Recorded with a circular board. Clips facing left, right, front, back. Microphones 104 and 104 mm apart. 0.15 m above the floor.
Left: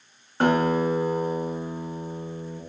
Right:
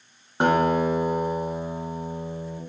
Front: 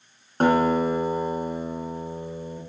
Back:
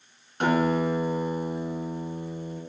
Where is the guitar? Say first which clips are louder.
Right 1 dB, front 4 dB; 25° right, 1.0 m.